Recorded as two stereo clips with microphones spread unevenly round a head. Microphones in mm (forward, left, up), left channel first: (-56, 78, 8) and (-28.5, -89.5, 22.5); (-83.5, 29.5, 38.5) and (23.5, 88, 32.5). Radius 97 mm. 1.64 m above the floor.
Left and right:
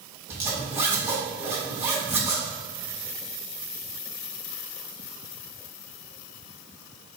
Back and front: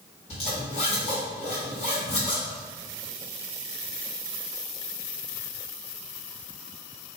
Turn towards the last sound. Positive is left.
turn(degrees=-150)